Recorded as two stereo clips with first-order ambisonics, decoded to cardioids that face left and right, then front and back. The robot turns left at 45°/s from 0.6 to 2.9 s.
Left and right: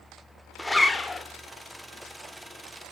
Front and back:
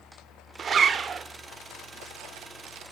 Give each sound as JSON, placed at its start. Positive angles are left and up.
{"t": 0.6, "sound": "a zipper", "azimuth_deg": 165, "distance_m": 0.7}